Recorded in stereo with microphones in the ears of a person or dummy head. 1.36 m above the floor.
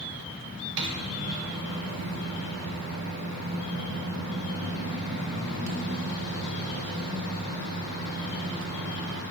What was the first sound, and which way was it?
A microwave, 65° right (ahead or behind).